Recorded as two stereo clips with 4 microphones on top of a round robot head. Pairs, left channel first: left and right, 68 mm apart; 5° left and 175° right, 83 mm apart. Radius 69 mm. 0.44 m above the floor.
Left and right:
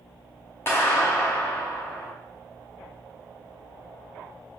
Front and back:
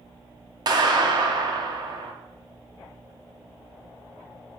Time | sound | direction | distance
0.7 | a clap | 155° left | 2.5 m